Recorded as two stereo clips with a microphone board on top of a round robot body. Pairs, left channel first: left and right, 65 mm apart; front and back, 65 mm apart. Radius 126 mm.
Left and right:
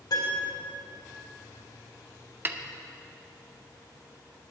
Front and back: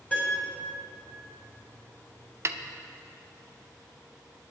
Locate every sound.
0.1 s a piano: 70° left, 4.5 m
2.5 s a snare drum: 140° right, 0.8 m